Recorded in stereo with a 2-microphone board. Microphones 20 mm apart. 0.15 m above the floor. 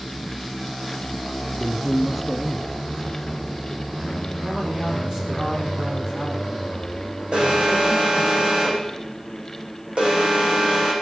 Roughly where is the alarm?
Right.